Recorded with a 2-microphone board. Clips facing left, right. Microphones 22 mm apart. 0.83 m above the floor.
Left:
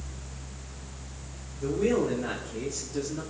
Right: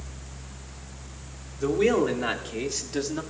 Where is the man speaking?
65° right (ahead or behind), 2.5 m; by 3.2 s 60° right (ahead or behind), 2.0 m.